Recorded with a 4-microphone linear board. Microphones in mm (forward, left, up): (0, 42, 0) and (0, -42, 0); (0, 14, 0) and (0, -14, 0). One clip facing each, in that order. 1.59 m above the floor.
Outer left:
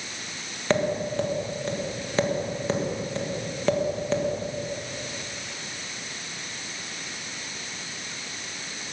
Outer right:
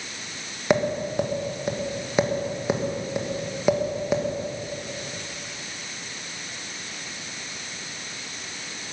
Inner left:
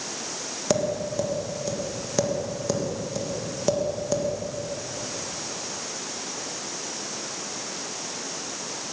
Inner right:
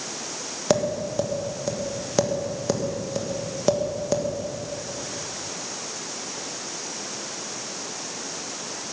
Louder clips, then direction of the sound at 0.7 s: Outer right 2 dB, inner right 2 dB; 15° right (ahead or behind).